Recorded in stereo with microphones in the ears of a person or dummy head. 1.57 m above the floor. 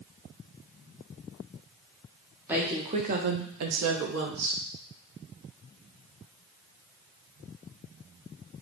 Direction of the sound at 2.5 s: 5° right (ahead or behind).